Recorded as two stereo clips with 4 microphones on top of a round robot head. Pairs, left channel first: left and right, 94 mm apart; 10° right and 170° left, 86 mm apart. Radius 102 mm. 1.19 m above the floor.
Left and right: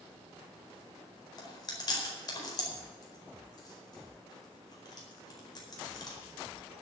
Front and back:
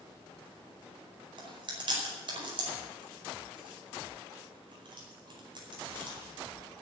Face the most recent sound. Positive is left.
turn(degrees=140)